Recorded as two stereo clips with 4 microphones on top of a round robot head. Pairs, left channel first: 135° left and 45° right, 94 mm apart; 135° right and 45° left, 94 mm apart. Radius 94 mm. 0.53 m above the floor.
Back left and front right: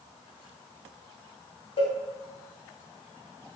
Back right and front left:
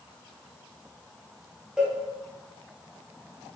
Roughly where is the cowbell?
Behind left.